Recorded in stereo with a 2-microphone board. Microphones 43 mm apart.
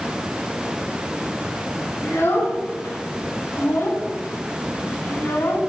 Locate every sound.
2.0 s a child speaking: 80° left, 6 m